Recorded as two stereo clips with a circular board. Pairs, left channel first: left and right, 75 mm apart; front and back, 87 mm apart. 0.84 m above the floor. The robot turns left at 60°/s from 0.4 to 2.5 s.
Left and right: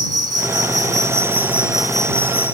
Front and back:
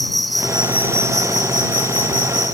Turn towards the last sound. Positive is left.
turn(degrees=145)